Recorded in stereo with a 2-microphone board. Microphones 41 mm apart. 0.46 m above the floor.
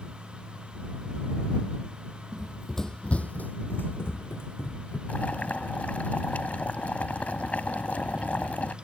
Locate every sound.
2.3 s running footsteps: 20° right (ahead or behind); by 5.0 s 75° left (ahead or behind)
5.1 s boiling: 40° left (ahead or behind)